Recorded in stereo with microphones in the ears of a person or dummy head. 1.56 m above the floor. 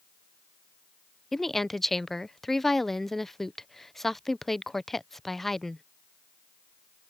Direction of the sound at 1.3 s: Centre (ahead or behind).